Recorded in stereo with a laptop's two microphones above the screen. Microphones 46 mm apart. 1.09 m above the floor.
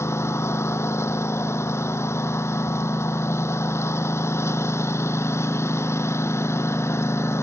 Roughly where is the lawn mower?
Left.